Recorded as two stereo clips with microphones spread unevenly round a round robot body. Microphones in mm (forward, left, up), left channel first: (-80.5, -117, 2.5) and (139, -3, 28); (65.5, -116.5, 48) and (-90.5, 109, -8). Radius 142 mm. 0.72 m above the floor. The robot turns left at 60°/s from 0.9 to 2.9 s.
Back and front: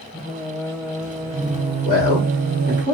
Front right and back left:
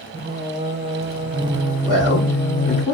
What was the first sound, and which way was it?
Singing, 130° left.